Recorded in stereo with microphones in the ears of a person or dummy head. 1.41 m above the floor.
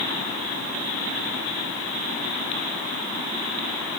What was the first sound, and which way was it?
Only background noise.